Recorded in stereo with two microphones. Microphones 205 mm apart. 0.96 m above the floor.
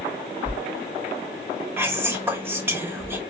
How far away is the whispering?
About 0.8 m.